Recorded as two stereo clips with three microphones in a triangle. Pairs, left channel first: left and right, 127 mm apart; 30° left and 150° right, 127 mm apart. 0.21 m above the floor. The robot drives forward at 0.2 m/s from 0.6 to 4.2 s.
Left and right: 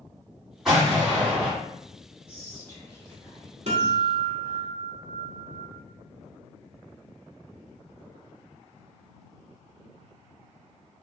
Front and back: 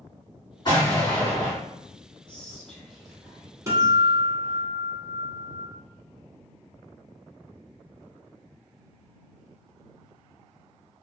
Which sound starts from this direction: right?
A guitar, at 3.7 s.